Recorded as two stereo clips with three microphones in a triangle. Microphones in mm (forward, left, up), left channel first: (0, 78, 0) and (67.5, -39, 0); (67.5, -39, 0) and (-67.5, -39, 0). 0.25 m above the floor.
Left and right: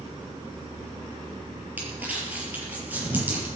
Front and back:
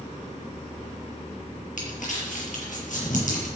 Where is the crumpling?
20° left, 6 m.